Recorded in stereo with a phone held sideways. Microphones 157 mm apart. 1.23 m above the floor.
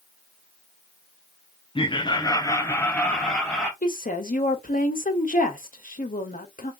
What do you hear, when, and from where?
1.8 s laughter: 35° left (ahead or behind), 0.7 m; by 3.7 s centre (ahead or behind), 1.0 m
3.8 s a woman speaking: 60° left (ahead or behind), 1.2 m